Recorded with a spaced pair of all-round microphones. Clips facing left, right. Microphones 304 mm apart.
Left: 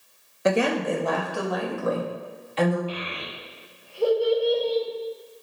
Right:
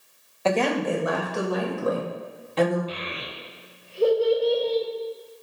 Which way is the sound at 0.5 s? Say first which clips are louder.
Left 1 dB; 20° left (ahead or behind).